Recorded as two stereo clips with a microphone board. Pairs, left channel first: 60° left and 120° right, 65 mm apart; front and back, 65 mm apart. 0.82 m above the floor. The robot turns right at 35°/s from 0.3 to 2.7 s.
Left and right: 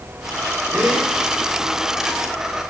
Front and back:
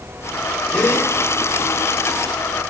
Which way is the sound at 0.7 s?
75° right.